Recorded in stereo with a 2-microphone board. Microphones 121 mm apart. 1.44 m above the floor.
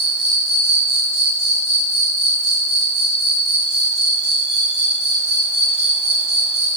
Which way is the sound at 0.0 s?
65° right (ahead or behind).